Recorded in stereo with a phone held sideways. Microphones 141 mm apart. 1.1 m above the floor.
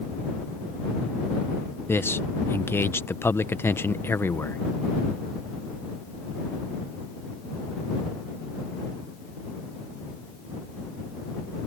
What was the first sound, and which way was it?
A man speaking, 15° left (ahead or behind).